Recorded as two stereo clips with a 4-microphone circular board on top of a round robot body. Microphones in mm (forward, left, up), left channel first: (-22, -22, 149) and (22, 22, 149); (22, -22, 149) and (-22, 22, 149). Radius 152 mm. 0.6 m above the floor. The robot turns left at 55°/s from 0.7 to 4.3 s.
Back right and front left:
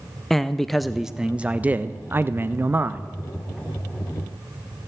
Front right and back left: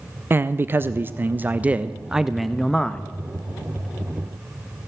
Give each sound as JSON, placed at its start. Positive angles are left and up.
{"t": 0.3, "sound": "a man speaking", "azimuth_deg": 140, "distance_m": 0.6}